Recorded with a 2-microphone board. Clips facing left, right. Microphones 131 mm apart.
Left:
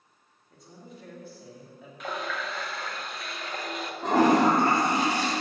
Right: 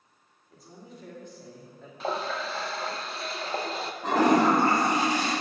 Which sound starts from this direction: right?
A running tap, at 2.0 s.